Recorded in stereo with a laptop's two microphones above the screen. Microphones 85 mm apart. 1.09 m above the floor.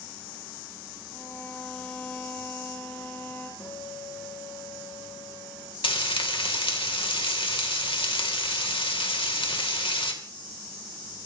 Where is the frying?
85° left, 2.5 m.